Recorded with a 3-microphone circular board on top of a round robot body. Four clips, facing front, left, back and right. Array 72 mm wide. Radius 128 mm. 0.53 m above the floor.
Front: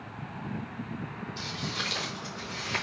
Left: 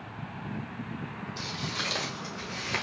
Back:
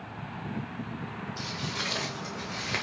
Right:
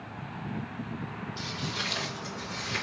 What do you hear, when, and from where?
1.4 s footsteps: 105° left, 1.5 m; by 2.8 s 145° left, 0.7 m